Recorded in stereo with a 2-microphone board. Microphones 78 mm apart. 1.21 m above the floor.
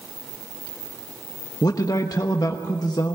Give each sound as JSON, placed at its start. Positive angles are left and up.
{"t": 1.6, "sound": "a man speaking", "side_deg": 55, "distance_m": 1.2}